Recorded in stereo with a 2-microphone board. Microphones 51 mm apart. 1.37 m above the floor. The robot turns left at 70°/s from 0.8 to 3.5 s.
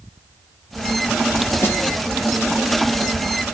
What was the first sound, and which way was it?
A snare drum, 65° left (ahead or behind).